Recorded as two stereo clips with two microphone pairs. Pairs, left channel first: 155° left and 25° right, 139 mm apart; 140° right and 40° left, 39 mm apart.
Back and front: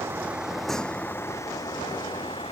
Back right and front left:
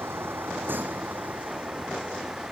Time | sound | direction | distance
0.0 | a vehicle | 50° left | ?